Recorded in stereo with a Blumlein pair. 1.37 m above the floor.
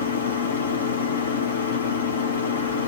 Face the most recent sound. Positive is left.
turn(degrees=65)